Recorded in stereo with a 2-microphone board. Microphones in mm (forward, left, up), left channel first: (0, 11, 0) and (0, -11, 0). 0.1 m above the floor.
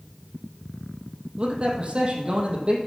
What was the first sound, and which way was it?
A man speaking, 45° right (ahead or behind).